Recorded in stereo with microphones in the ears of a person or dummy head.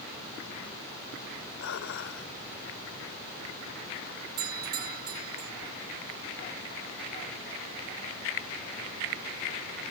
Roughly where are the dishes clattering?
Left.